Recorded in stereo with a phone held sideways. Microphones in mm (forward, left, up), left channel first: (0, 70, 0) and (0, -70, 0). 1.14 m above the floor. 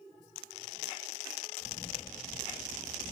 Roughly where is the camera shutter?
Left.